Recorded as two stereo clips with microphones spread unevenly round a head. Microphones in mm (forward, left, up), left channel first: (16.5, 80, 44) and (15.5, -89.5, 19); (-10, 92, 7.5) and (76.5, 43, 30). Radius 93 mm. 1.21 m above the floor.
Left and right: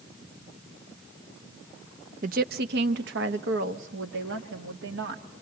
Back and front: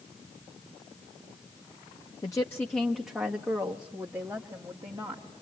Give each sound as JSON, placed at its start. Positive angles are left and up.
{"t": 2.2, "sound": "a woman speaking", "azimuth_deg": -140, "distance_m": 0.7}